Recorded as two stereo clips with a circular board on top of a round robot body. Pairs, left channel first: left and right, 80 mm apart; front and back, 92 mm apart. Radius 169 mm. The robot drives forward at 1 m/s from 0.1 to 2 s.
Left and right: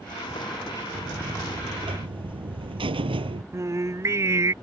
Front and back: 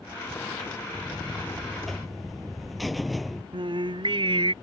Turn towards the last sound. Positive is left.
turn(degrees=-145)